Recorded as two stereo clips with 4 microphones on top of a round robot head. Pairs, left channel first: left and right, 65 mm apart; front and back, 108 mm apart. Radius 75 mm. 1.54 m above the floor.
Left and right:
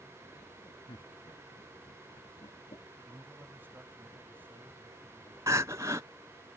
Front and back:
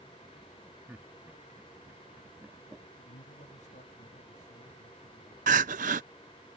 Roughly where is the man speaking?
Ahead right.